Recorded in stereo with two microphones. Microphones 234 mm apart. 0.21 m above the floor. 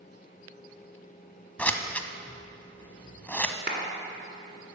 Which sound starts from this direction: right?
A clap, at 3.7 s.